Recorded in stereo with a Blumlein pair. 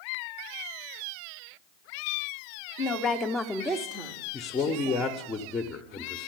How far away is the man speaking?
About 0.8 m.